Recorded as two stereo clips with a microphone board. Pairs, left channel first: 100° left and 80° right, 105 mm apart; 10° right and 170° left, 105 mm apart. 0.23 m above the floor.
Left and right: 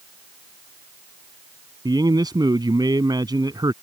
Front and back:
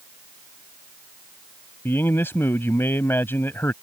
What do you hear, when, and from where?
1.9 s a man speaking: 70° right